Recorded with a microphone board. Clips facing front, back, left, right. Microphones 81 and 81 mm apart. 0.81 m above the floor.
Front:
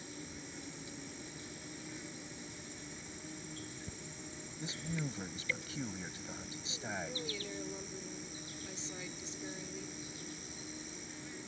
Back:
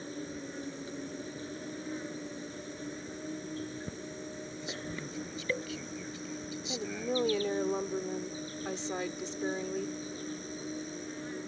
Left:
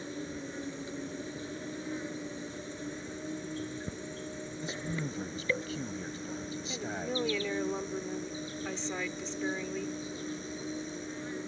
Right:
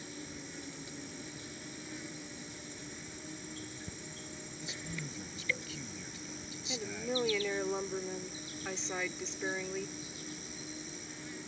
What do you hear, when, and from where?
0.0 s an insect: 140° left
4.6 s a man speaking: 50° left
6.7 s a woman speaking: 175° right